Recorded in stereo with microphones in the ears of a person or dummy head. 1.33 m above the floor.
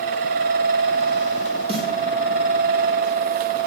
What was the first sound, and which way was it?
A snare drum, 30° right (ahead or behind).